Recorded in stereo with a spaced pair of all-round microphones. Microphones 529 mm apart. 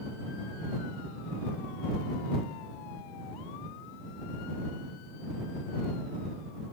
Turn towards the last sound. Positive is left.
No sound to turn to.